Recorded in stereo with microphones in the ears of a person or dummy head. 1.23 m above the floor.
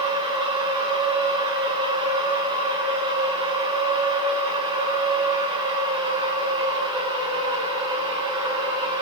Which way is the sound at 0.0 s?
15° right (ahead or behind).